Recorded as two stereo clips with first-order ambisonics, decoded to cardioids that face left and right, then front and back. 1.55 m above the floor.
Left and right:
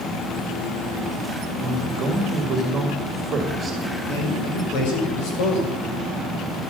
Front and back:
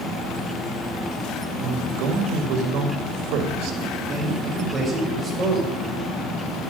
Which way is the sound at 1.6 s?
160° right.